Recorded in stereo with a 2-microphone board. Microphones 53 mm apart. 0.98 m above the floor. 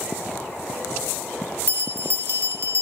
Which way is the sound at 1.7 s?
60° right (ahead or behind).